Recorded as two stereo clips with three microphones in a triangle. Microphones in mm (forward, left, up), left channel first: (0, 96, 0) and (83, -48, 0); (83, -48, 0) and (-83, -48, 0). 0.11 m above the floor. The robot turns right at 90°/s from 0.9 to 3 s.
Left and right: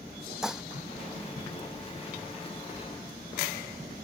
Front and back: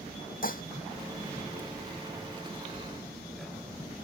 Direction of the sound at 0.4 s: 25° left.